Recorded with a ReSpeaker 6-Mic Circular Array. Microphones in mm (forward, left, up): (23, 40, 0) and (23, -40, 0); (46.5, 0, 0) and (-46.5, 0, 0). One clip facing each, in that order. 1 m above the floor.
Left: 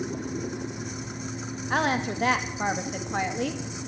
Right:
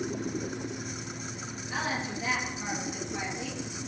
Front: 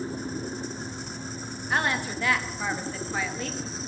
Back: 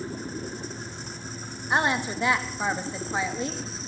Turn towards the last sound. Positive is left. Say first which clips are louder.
# left 7 dB, back 3 dB
turn(degrees=110)